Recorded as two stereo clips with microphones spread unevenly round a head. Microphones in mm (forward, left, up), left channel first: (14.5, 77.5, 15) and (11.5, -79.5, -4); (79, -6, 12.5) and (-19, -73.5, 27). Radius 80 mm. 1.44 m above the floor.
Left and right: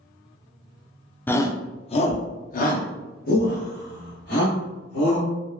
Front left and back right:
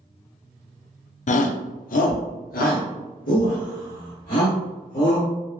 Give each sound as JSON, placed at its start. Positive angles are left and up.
{"t": 1.3, "sound": "a shout", "azimuth_deg": 10, "distance_m": 0.6}